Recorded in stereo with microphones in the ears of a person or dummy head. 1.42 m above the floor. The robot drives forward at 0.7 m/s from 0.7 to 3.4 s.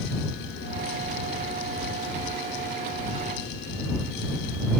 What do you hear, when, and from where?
Only background noise.